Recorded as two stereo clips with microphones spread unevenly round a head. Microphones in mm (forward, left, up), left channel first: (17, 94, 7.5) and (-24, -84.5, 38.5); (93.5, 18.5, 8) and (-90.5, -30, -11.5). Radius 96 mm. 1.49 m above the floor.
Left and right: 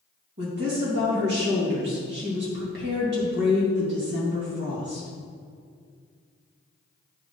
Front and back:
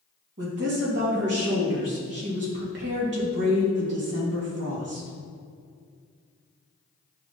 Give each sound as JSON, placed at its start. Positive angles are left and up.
{"t": 0.4, "sound": "a woman speaking", "azimuth_deg": -135, "distance_m": 2.5}